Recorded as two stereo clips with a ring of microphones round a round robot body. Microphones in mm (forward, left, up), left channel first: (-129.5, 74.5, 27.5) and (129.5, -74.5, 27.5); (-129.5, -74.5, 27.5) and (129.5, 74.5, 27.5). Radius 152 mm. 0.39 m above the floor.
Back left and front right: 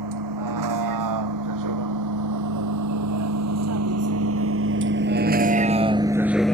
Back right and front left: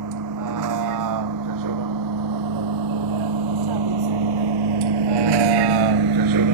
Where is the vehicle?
5° right; by 6.5 s 65° left.